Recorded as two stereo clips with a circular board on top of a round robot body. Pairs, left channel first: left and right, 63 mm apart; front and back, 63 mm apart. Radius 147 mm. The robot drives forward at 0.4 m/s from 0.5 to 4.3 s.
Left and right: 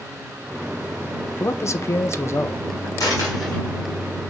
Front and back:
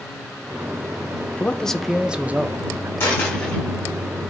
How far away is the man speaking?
About 0.6 m.